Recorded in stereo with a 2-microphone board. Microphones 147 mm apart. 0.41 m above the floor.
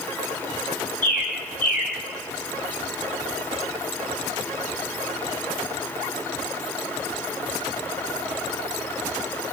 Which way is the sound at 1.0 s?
65° left (ahead or behind).